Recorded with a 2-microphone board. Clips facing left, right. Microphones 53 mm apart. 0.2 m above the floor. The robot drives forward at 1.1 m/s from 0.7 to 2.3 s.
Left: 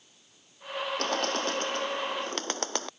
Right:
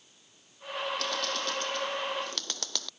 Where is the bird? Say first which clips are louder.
Left 4 dB; 40° left (ahead or behind); by 2.9 s 35° left (ahead or behind).